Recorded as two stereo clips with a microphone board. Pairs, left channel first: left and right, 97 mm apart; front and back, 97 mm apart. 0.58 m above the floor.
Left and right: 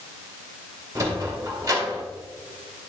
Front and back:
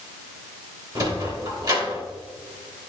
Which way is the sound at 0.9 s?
145° right.